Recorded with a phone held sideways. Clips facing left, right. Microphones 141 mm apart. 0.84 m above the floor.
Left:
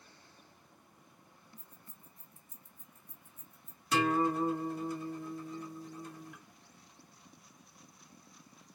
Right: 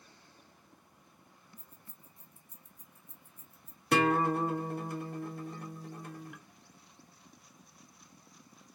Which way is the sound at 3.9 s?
60° right (ahead or behind).